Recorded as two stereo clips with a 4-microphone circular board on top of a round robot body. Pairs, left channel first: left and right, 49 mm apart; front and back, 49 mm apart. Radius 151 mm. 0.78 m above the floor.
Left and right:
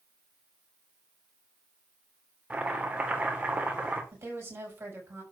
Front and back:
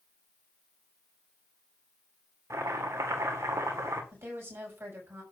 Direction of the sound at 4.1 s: 135° right.